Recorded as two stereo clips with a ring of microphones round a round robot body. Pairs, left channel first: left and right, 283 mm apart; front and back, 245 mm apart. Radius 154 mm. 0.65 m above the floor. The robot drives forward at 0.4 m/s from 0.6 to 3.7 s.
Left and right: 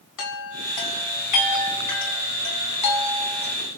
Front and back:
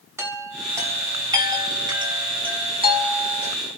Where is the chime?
100° left, 4 m; by 3.5 s 115° left, 4.5 m.